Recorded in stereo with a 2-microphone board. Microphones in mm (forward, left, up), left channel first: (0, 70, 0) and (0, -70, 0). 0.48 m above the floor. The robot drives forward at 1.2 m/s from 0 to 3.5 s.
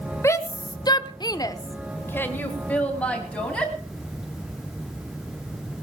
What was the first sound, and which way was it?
A shout, 20° left (ahead or behind).